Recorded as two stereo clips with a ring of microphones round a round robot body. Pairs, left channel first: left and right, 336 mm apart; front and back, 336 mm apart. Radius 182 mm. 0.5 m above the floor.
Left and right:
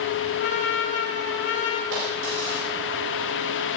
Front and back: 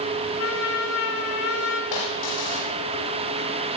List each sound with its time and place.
0.4 s a trumpet: 30° left, 4 m
1.9 s a dropped coin: 30° right, 10 m